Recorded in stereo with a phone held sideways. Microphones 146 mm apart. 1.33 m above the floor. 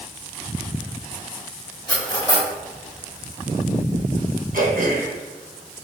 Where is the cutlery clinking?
30° left (ahead or behind), 1.7 m.